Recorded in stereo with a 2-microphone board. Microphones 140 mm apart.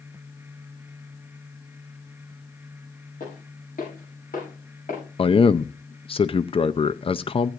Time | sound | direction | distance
3.2 | footsteps | 80° left | 7 m
5.2 | a man speaking | 40° left (ahead or behind) | 0.5 m